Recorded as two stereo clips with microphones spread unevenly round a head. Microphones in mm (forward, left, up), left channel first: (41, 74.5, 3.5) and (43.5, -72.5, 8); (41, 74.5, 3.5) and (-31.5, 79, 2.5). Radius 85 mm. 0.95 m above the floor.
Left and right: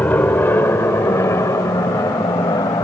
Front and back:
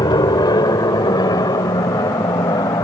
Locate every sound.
0.0 s an aircraft: 15° left; by 2.9 s 25° left